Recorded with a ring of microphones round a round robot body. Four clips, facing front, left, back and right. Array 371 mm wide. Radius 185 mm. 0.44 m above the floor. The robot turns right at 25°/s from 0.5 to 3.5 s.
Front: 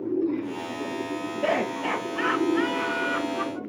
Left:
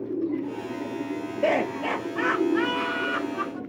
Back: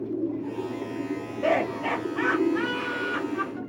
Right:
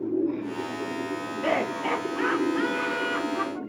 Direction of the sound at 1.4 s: 55° left.